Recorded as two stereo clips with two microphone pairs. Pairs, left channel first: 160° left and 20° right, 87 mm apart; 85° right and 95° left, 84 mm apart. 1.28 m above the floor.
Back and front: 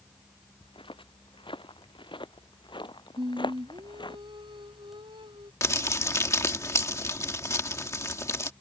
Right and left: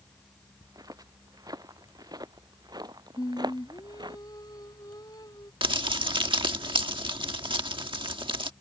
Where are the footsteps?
140° left; by 4.2 s 125° left.